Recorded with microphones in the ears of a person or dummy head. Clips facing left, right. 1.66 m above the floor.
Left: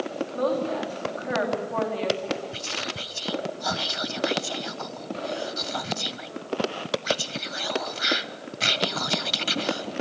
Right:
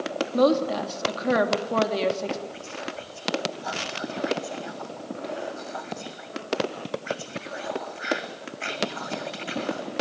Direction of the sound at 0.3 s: 55° right (ahead or behind).